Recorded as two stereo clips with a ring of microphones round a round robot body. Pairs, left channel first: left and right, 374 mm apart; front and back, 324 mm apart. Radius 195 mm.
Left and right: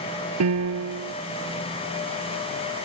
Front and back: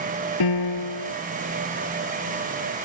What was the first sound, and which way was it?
A piano, 40° right.